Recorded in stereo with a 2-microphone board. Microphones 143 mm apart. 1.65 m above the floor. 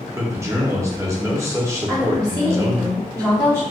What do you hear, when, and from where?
0.1 s a man speaking: 20° right (ahead or behind), 0.9 m
1.9 s a woman speaking: 15° right (ahead or behind), 1.9 m